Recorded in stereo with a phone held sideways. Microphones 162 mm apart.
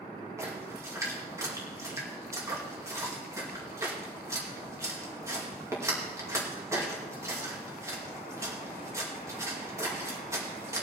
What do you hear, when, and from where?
0.4 s a splash: 20° right (ahead or behind), 2.5 m